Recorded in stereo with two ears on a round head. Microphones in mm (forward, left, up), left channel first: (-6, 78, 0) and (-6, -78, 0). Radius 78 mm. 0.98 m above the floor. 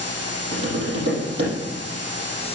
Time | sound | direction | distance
0.5 | tapping | 70° right (ahead or behind) | 6 m